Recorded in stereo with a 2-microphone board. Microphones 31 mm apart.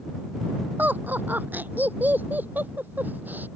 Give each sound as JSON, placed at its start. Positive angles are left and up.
{"t": 0.8, "sound": "laughter", "side_deg": -75}